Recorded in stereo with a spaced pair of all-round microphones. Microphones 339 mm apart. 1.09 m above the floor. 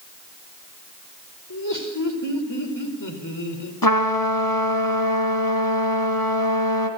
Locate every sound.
1.5 s laughter: 60° left (ahead or behind), 4.5 m
3.8 s a trumpet: 75° left (ahead or behind), 3 m